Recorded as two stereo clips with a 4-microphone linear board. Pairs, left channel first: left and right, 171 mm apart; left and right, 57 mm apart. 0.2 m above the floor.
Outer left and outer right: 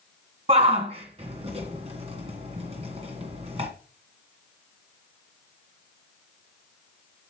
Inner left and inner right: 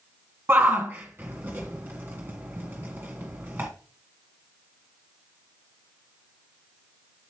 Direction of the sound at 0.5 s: 40° right (ahead or behind).